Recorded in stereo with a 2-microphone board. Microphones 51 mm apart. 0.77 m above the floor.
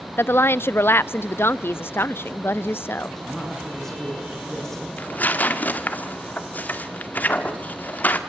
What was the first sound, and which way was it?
A woman speaking, 50° left (ahead or behind).